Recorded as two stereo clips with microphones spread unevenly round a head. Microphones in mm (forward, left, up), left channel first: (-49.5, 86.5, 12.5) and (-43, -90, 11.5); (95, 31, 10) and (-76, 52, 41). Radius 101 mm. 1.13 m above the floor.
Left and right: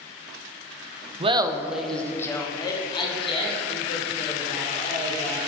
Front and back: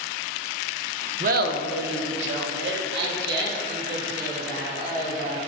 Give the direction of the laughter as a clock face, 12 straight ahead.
5 o'clock.